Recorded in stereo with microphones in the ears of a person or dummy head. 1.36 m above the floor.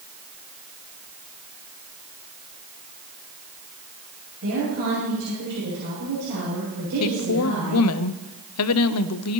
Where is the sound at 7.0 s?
75° left (ahead or behind), 0.7 m.